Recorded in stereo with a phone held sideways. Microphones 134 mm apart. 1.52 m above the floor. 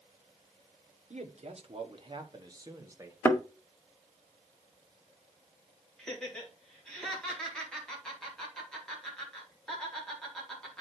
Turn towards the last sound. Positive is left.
turn(degrees=5)  # may be behind; listen again after turning